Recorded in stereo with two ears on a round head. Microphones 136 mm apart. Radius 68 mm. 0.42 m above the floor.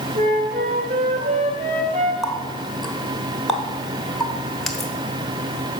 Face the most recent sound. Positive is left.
turn(degrees=0)  # may be behind; listen again after turning